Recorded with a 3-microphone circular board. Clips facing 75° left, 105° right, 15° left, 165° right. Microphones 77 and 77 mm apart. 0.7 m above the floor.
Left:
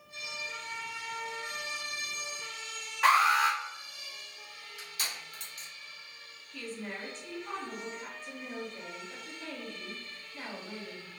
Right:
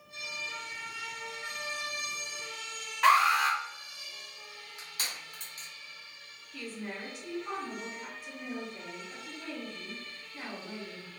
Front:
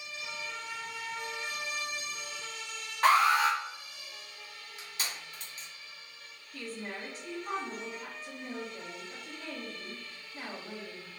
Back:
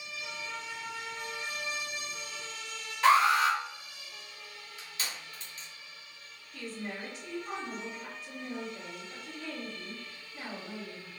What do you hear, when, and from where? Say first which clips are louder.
3.0 s an alarm: right 1 dB, back 1 dB; 10° right, 1.5 m
4.8 s crushing: left 1 dB, even; 50° right, 1.9 m
6.5 s a woman speaking: even, back 1 dB; 25° right, 1.2 m